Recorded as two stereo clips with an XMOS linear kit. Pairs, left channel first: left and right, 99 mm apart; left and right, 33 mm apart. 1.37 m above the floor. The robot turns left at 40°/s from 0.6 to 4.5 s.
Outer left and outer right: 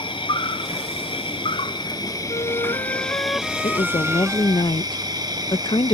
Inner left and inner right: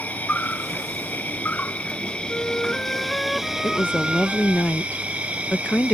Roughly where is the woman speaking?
Left.